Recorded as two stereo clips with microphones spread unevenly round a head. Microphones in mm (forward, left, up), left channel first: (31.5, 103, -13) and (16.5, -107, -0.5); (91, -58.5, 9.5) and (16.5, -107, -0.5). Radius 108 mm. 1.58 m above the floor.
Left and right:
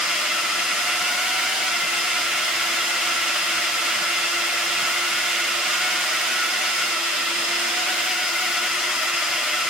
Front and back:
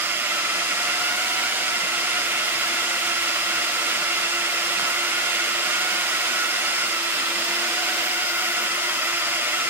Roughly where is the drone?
Behind.